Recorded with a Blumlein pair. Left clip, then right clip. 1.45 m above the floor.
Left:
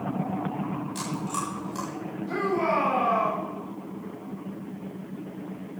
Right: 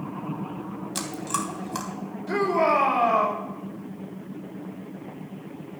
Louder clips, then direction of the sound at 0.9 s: Right 5 dB; 30° right.